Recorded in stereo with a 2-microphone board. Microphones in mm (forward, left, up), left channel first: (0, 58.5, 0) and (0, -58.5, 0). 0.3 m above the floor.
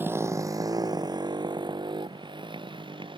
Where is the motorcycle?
15° right (ahead or behind); by 3.2 s 45° right (ahead or behind).